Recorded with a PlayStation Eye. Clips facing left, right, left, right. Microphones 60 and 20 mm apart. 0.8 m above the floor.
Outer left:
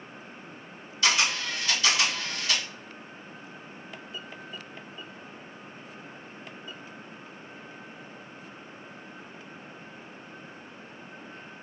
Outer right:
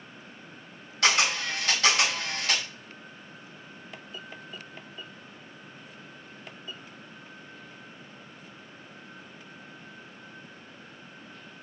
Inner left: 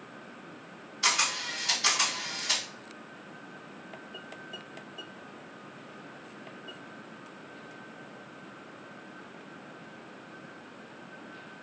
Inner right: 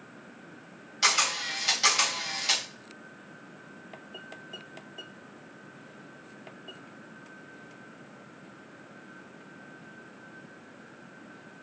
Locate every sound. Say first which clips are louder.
1.0 s a camera shutter: outer right 1 dB, inner right 2 dB; 70° right (ahead or behind), 2.5 m